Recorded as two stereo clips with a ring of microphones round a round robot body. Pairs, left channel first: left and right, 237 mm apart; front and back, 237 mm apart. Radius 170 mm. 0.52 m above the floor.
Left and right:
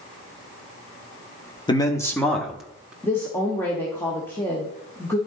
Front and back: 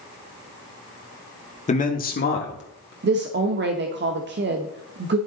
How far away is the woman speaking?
About 0.9 m.